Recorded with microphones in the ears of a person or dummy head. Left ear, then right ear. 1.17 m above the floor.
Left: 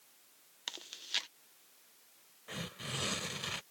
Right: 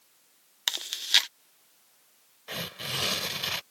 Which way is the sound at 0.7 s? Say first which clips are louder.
Right 14 dB; 45° right (ahead or behind).